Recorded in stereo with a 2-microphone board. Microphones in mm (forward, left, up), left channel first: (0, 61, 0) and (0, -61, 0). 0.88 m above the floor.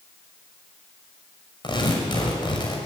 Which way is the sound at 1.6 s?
40° left (ahead or behind).